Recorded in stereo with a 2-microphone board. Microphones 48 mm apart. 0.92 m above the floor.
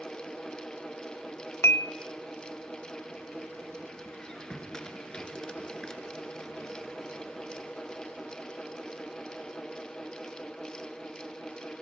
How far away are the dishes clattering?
About 1.1 m.